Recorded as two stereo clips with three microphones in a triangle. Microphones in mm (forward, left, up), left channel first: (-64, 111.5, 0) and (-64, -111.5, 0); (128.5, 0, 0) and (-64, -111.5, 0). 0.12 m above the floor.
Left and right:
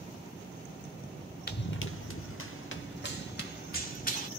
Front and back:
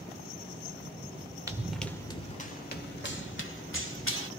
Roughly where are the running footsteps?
Behind left.